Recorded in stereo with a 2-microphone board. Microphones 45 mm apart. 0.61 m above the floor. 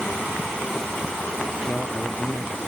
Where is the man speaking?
45° left (ahead or behind).